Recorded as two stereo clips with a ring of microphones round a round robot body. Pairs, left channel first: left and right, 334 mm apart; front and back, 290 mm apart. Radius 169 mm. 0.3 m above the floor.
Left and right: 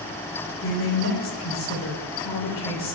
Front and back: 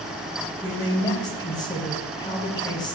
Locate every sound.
0.6 s a man speaking: 70° left, 1.4 m